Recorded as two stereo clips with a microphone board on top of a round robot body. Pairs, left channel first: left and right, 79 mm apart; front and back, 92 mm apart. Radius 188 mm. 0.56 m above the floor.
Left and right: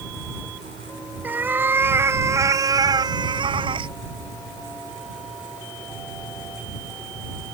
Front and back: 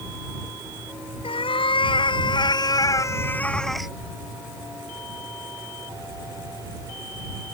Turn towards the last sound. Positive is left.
turn(degrees=-95)